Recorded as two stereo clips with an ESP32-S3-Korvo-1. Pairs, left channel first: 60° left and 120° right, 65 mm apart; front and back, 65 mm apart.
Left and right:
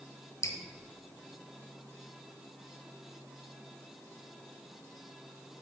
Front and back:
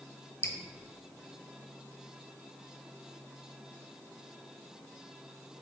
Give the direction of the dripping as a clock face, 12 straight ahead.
11 o'clock.